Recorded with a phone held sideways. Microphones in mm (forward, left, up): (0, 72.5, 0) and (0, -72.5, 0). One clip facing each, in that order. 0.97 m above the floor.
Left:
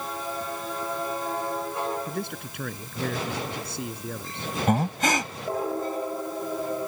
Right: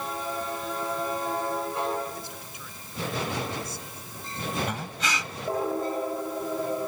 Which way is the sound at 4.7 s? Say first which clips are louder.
Left 9 dB; 50° left (ahead or behind).